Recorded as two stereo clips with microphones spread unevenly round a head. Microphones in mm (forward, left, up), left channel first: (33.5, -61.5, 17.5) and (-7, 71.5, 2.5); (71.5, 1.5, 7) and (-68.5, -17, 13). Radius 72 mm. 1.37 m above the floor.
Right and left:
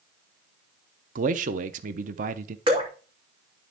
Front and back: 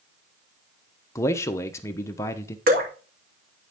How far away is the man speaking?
About 0.7 m.